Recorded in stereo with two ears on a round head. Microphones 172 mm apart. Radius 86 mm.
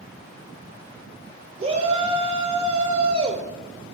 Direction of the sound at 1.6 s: 30° right (ahead or behind).